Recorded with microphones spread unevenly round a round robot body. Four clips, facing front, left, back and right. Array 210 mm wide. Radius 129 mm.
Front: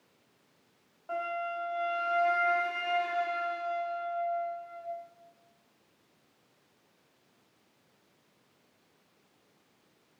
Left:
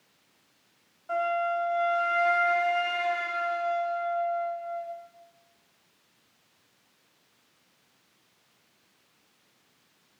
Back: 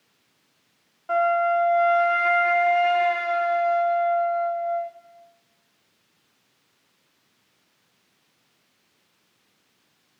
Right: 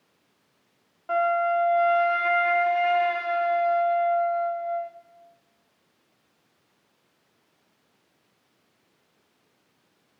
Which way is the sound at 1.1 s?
155° right.